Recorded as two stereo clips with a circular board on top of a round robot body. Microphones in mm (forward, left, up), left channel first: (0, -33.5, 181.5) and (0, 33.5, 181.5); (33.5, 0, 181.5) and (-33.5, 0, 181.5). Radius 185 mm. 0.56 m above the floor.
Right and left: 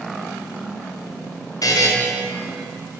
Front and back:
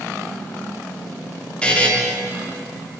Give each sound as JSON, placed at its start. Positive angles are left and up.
{"t": 1.6, "sound": "a buzzer", "azimuth_deg": -75, "distance_m": 2.0}